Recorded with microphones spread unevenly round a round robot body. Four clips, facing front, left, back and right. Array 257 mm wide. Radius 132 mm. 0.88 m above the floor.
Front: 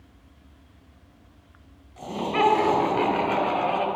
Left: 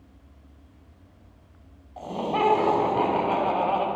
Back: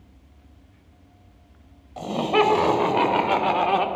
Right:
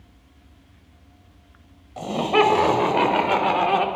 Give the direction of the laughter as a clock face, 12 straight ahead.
4 o'clock.